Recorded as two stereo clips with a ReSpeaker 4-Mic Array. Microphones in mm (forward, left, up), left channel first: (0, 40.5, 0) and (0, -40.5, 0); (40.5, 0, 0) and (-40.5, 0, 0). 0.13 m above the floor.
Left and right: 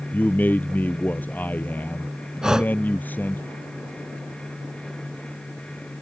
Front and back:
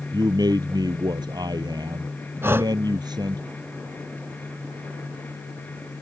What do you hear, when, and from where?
0.1 s a man speaking: 155° left
2.4 s breathing: 165° right